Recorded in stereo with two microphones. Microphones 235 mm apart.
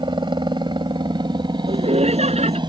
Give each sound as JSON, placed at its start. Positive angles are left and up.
{"t": 0.0, "sound": "a helicopter", "side_deg": -20}
{"t": 1.7, "sound": "laughter", "side_deg": -25}